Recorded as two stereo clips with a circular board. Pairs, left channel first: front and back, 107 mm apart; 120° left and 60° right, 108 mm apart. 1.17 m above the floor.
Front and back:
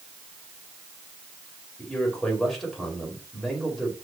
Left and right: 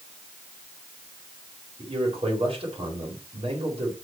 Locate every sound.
1.8 s a man speaking: 90° right, 5 m